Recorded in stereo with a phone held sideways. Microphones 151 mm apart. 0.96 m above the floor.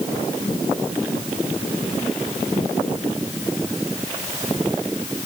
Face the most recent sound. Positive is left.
No sound to turn to.